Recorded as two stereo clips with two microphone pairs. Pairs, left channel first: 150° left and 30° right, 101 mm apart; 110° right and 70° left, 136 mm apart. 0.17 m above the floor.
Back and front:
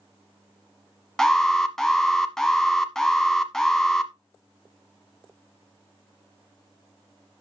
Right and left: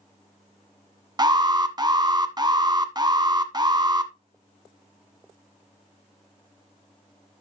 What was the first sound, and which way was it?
An alarm, 70° left.